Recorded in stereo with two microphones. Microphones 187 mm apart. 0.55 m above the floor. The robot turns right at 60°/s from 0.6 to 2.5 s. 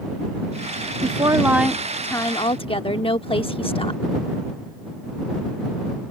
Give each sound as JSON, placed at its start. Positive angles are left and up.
{"t": 1.0, "sound": "a woman speaking", "azimuth_deg": -45}